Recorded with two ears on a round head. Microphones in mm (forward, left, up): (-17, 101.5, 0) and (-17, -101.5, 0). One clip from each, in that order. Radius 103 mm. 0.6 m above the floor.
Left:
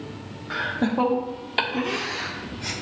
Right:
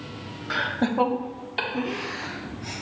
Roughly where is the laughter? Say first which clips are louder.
Even; right.